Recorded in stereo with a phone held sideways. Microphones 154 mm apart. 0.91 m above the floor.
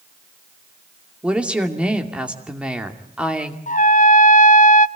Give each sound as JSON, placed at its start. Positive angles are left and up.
{"t": 1.2, "sound": "a woman speaking", "side_deg": -5, "distance_m": 2.5}
{"t": 3.7, "sound": "a trumpet", "side_deg": 55, "distance_m": 0.5}